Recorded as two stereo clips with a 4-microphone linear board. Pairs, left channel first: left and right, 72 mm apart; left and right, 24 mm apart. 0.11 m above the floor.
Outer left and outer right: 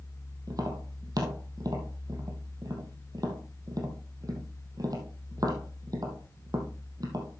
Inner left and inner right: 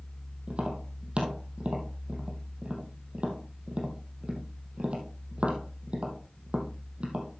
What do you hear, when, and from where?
0.5 s tapping: 60° right (ahead or behind), 2.5 m